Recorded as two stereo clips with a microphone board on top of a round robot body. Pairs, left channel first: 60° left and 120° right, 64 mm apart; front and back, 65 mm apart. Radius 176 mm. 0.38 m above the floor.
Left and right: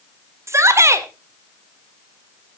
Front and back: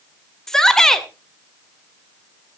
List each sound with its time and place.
0.5 s a shout: 80° right, 1.8 m